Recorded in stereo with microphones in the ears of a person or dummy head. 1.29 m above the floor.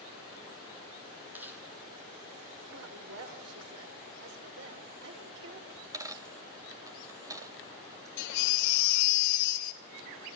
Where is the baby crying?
70° left (ahead or behind), 2.5 m.